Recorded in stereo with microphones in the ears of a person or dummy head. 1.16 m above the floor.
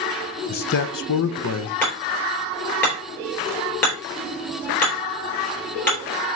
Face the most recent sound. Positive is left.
turn(degrees=10)  # may be behind; listen again after turning